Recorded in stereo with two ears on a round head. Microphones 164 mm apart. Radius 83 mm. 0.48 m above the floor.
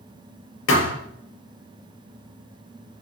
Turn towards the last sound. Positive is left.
turn(degrees=85)